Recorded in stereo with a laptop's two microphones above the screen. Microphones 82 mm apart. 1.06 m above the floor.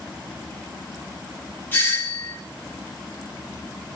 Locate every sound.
1.7 s a doorbell: 25° left (ahead or behind), 0.7 m